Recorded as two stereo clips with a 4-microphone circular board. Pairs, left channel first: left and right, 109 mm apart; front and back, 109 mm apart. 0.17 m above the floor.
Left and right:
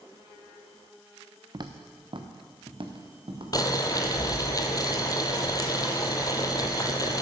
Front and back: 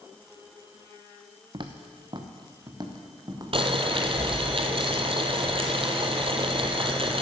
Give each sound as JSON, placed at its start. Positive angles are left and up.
{"t": 1.5, "sound": "footsteps", "azimuth_deg": -140, "distance_m": 1.1}
{"t": 3.5, "sound": "boiling", "azimuth_deg": 145, "distance_m": 1.1}